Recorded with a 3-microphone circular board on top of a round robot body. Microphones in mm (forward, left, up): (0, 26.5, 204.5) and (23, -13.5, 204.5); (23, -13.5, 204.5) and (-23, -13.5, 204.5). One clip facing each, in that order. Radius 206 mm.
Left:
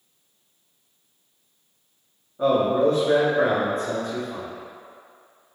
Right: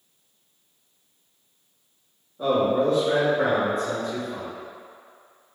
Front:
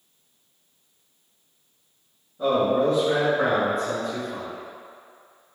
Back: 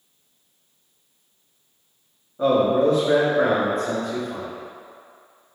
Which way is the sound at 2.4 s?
160° left.